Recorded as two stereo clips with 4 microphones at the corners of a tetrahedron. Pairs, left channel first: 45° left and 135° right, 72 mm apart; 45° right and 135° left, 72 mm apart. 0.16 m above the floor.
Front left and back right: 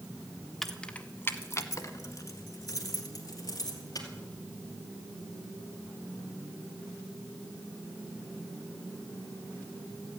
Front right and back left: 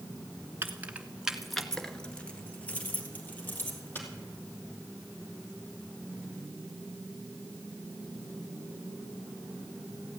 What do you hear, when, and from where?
0.6 s keys jangling: 135° left, 1.1 m; by 4.1 s 15° left, 3.5 m